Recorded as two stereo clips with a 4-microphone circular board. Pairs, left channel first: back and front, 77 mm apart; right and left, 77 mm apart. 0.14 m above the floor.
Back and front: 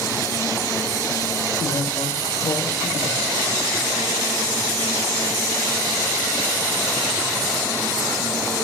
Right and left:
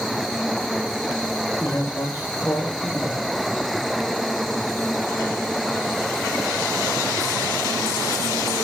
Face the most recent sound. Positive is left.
turn(degrees=-145)